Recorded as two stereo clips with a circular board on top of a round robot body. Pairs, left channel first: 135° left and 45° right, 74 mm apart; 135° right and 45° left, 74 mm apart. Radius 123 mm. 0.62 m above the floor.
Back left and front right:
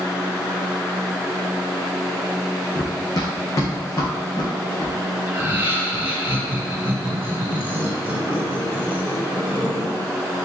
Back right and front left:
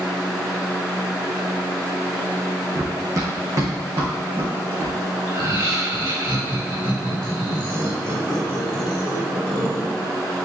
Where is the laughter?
20° left, 5 m.